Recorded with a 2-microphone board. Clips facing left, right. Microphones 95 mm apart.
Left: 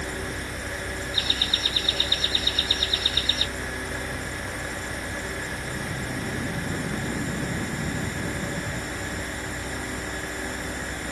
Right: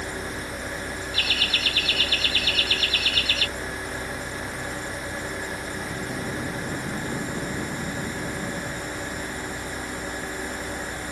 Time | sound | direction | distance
1.1 | laughter | 80° right | ?